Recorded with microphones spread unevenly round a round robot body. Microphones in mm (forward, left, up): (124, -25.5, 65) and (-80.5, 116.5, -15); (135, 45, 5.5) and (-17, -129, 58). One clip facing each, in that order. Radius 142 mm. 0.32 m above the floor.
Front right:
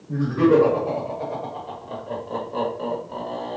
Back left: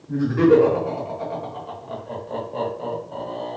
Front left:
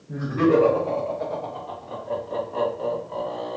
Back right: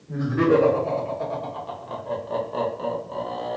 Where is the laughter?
160° left, 2 m; by 3.6 s 95° right, 1.7 m.